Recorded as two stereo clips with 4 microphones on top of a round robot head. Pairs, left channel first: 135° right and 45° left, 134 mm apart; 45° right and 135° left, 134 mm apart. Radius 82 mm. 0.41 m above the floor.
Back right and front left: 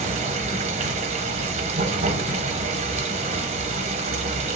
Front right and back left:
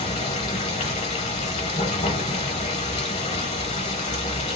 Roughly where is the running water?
Ahead.